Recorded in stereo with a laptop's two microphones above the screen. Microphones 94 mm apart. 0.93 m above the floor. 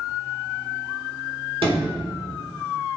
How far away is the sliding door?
About 3.5 m.